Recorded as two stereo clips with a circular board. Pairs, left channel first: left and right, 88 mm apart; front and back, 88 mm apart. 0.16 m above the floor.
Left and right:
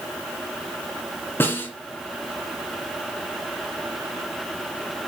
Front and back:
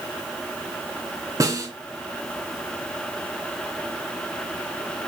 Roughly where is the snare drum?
Behind left.